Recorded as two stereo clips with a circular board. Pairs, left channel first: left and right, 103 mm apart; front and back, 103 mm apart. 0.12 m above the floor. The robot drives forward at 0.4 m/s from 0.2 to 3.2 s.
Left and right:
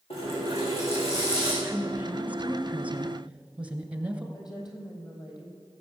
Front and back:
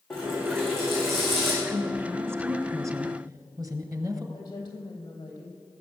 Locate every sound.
0.1 s a running tap: 80° left, 6 m; by 1.5 s 85° left, 6 m
1.6 s a woman speaking: 130° right, 1.3 m; by 4.2 s 160° right, 1.6 m
4.3 s a woman speaking: 45° left, 3.5 m